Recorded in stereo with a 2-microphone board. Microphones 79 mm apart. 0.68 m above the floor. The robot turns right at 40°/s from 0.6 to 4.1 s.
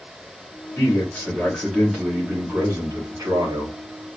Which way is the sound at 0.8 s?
140° left.